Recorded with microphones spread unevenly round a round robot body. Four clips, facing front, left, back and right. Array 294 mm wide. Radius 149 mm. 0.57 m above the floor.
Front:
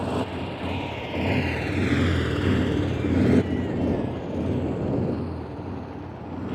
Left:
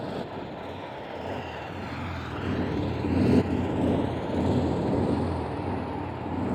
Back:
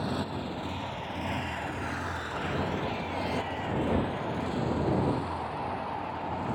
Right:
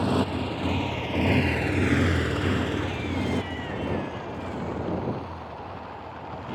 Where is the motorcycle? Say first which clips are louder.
Right 8 dB, front 5 dB; 75° right; by 6.5 s 65° left.